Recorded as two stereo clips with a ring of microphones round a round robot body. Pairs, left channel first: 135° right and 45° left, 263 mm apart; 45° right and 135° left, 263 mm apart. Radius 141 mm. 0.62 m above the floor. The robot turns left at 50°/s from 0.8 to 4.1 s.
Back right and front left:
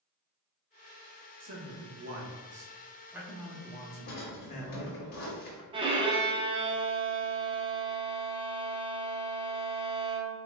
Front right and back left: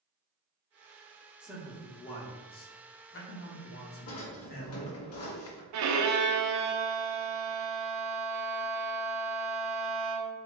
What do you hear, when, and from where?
1.4 s a man speaking: 50° left, 0.9 m; by 5.0 s 85° right, 0.9 m
4.1 s a drawer: 80° right, 0.7 m
5.7 s a violin: 115° left, 0.5 m